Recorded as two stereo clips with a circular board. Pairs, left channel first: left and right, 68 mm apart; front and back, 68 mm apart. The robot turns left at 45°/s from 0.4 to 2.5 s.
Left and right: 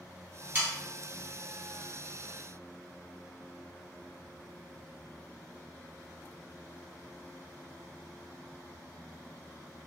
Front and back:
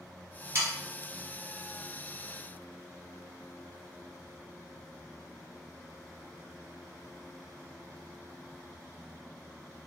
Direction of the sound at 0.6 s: 145° right.